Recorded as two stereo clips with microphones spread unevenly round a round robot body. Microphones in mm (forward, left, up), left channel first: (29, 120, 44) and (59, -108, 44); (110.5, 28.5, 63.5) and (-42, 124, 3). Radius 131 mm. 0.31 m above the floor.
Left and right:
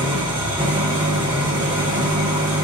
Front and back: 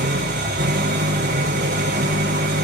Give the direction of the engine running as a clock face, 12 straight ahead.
5 o'clock.